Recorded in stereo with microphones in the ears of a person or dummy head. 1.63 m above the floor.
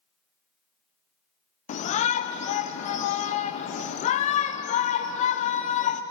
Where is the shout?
35° left (ahead or behind), 0.6 m.